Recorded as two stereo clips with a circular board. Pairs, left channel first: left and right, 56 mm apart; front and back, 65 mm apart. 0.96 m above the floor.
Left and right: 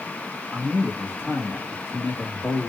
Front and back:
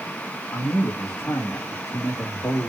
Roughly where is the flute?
No flute in this recording.